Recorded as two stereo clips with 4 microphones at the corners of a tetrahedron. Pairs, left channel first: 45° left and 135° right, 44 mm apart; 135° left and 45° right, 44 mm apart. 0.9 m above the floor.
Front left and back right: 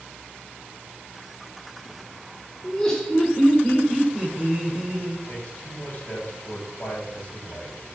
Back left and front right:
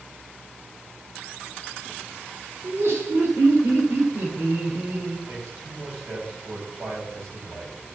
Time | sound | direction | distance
2.6 | laughter | 30° right | 2.5 m
5.3 | a man speaking | 10° right | 5 m